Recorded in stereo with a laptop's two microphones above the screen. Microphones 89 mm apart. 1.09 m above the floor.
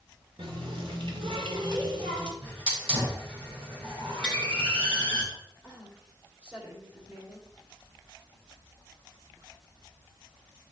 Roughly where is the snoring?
I don't hear snoring.